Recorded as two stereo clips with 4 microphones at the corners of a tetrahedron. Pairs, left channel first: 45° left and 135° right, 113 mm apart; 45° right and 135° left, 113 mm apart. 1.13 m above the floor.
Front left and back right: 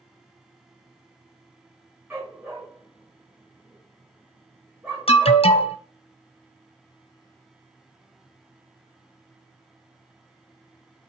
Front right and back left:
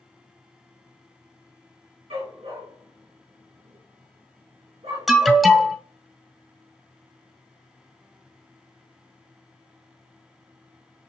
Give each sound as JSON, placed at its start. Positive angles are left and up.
{"t": 2.1, "sound": "a dog barking", "azimuth_deg": 155, "distance_m": 4.0}
{"t": 5.1, "sound": "an alarm", "azimuth_deg": 45, "distance_m": 1.0}